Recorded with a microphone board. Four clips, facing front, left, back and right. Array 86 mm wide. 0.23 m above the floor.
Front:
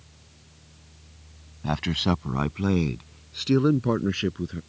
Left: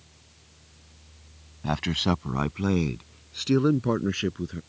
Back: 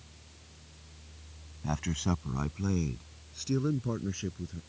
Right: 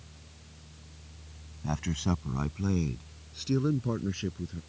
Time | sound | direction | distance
1.6 | a man speaking | 45° left | ?